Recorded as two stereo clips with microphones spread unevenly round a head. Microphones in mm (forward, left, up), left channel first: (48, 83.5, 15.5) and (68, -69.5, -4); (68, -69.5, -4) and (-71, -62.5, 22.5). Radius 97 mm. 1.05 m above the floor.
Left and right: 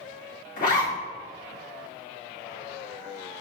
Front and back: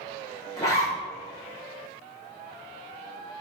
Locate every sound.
0.6 s a zipper: 65° left, 1.6 m